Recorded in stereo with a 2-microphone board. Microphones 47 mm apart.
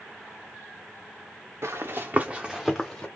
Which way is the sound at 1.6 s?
65° right (ahead or behind).